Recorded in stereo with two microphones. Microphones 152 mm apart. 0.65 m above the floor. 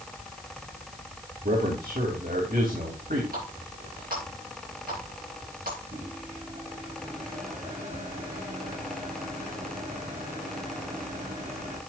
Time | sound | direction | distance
1.4 | a man speaking | 70° right (ahead or behind) | 3 m
3.3 | a running tap | 70° right (ahead or behind) | 8 m
5.9 | a microwave | 60° right (ahead or behind) | 6 m